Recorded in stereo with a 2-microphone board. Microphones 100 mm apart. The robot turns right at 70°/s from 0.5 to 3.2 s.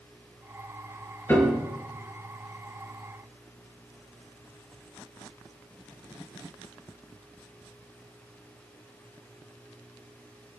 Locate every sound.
1.3 s a piano: 25° left (ahead or behind), 5 m; by 1.7 s 5° right (ahead or behind), 5 m